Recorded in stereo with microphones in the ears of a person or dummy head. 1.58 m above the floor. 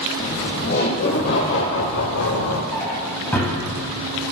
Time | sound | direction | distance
0.2 | laughter | 35° left (ahead or behind) | 1.3 m
2.7 | a drawer | 5° left (ahead or behind) | 4.5 m